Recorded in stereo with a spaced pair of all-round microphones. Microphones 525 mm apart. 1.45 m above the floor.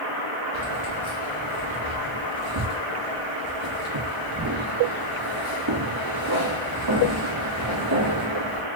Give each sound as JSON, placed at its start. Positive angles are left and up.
{"t": 0.5, "sound": "keys jangling", "side_deg": -50, "distance_m": 1.9}